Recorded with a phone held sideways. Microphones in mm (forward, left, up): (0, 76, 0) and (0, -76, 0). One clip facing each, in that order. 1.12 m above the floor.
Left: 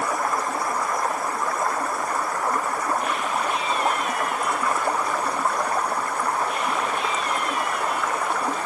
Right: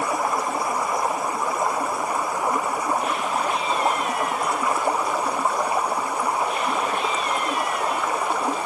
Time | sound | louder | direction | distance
0.0 | running water | right 1 dB | 10° right (ahead or behind) | ?